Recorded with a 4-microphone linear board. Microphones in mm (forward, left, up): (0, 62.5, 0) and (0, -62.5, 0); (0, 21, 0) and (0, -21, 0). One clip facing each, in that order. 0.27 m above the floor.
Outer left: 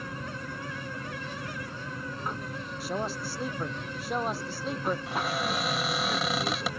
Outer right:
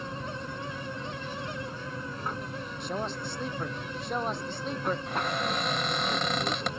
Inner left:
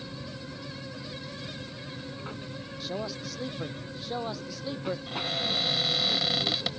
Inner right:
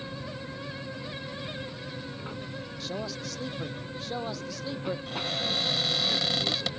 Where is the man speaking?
5° left (ahead or behind).